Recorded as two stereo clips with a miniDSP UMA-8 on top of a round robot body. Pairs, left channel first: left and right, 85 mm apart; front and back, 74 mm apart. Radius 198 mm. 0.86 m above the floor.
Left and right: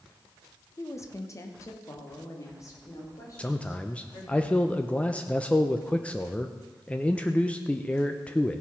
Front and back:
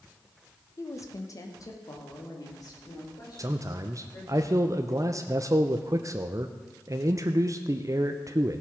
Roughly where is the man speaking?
Behind.